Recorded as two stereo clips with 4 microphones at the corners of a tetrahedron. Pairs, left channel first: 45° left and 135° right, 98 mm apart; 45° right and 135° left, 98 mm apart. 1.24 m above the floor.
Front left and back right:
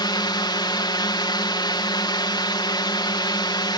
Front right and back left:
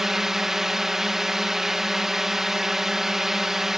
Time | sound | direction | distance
0.0 | a drone | 50° left | ?